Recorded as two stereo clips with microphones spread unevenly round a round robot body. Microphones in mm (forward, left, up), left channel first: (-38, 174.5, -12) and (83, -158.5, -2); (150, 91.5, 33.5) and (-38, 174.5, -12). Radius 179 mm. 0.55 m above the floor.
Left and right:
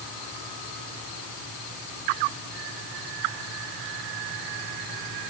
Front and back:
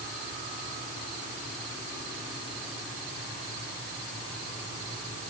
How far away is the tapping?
I don't hear tapping.